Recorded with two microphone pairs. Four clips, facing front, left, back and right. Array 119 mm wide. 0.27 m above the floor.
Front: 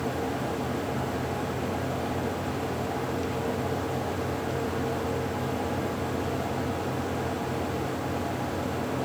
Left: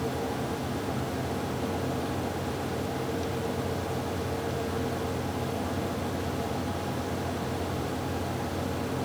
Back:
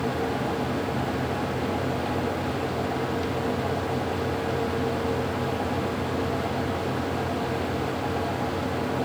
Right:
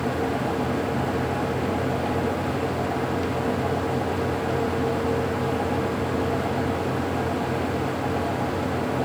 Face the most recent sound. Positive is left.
No sound to turn to.